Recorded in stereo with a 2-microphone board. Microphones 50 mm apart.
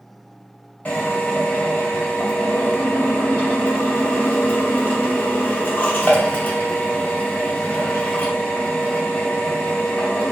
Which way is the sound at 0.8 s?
30° left (ahead or behind).